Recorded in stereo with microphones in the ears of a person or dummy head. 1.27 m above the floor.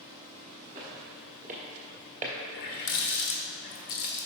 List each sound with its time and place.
0.8 s footsteps: 20° right (ahead or behind), 1.4 m; by 2.3 s 25° right (ahead or behind), 1.4 m
2.5 s a running tap: 50° left (ahead or behind), 0.9 m